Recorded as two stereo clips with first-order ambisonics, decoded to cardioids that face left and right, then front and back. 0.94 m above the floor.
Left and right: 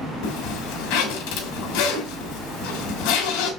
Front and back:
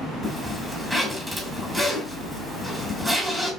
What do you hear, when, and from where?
0.2 s a zipper: 95° left, 3 m